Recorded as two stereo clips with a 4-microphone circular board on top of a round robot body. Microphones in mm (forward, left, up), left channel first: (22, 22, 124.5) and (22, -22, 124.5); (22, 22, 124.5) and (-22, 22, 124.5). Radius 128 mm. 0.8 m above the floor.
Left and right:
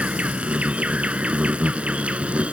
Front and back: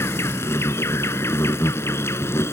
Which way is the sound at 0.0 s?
30° right.